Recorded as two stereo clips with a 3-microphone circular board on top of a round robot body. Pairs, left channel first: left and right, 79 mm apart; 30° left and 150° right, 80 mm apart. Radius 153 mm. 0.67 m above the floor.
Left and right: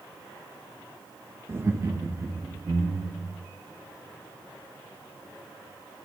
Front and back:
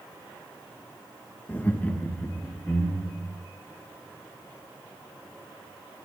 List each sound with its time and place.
1.5 s laughter: 35° right, 1.3 m; by 3.3 s 45° right, 2.5 m